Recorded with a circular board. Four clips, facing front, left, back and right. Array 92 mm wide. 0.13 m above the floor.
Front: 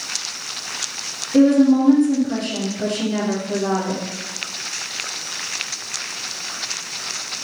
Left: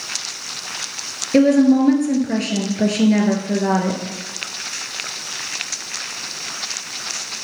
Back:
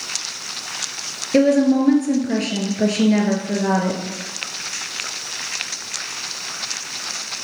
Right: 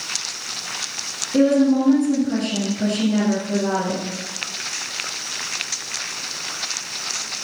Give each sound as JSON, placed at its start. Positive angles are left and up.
{"t": 1.3, "sound": "a woman speaking", "azimuth_deg": 130, "distance_m": 2.5}